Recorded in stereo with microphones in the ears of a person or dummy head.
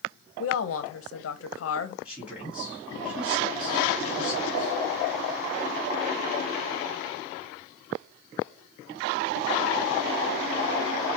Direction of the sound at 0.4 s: 70° left (ahead or behind).